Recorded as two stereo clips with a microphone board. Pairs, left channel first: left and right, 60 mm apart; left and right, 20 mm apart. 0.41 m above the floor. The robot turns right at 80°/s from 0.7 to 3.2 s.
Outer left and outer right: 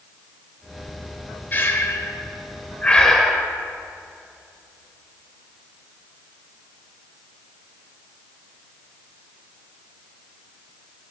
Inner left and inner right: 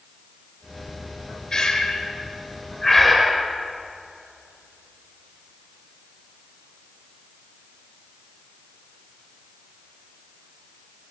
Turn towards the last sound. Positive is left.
turn(degrees=0)  # may be behind; listen again after turning